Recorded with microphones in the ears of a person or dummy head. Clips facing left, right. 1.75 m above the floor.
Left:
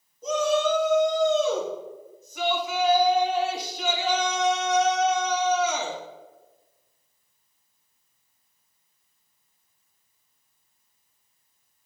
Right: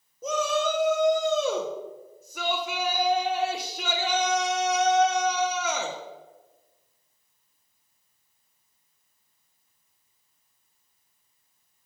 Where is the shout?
50° right (ahead or behind), 1.2 m.